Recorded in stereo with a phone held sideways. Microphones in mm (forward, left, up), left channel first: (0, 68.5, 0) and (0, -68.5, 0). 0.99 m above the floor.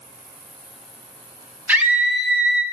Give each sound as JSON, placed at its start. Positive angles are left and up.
{"t": 1.7, "sound": "a scream", "side_deg": -15, "distance_m": 2.5}